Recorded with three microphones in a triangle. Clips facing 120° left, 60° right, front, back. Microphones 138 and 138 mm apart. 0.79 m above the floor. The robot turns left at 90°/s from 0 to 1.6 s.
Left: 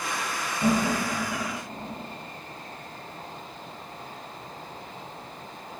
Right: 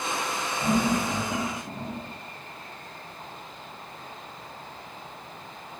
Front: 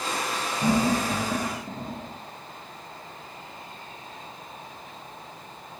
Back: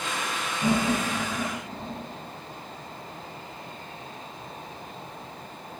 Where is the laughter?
70° left, 0.7 m; by 2.0 s 20° right, 0.7 m.